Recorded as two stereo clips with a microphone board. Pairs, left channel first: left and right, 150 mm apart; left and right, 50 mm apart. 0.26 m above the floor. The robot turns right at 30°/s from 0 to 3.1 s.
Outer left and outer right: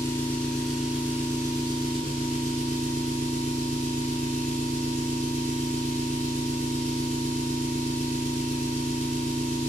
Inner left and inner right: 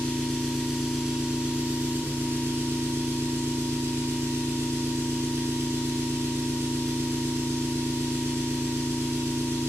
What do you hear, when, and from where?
0.0 s an engine running: 160° left, 0.9 m; by 9.7 s 110° right, 0.9 m